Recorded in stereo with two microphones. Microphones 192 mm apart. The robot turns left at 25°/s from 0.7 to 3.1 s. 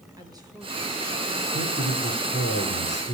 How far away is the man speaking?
About 3.5 m.